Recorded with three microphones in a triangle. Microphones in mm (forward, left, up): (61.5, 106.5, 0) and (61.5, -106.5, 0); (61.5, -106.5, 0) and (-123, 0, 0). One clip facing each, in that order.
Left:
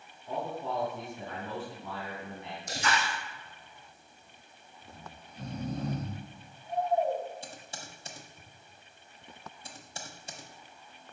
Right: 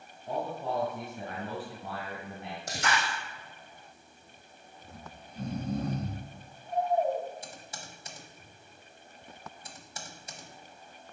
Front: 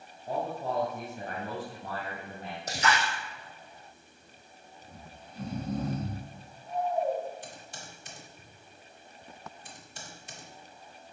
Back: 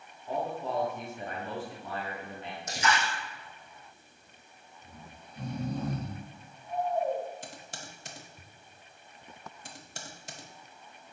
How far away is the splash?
About 2.5 m.